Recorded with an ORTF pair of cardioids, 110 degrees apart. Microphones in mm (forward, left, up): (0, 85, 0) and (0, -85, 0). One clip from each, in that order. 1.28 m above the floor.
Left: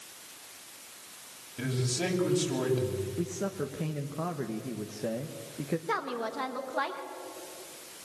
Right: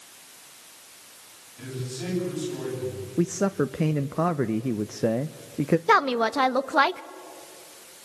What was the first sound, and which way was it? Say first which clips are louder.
A man speaking: left 4 dB; 65° left.